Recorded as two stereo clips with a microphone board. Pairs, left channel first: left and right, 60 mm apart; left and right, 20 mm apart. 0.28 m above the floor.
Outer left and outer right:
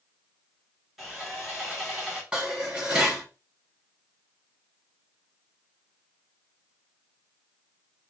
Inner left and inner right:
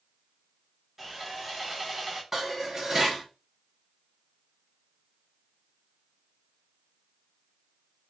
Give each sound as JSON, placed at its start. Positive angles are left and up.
{"t": 1.0, "sound": "sawing", "side_deg": -5, "distance_m": 3.5}
{"t": 2.3, "sound": "dishes clattering", "side_deg": -20, "distance_m": 1.7}